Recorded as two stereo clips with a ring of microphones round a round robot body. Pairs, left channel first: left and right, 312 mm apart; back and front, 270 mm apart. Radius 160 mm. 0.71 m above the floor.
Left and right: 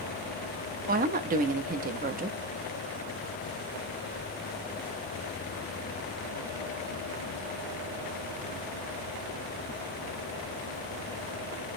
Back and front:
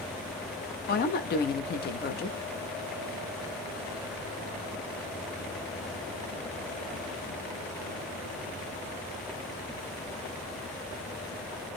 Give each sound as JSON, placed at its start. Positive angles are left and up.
{"t": 0.9, "sound": "a woman speaking", "azimuth_deg": -140, "distance_m": 0.6}